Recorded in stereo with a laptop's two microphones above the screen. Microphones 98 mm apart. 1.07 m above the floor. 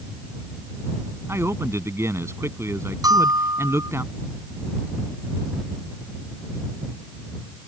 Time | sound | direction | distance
1.3 | a man speaking | 30° right (ahead or behind) | ?
3.0 | a bell | 40° right (ahead or behind) | ?